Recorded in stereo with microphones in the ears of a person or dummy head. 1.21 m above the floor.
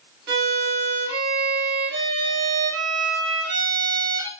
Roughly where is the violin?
Right.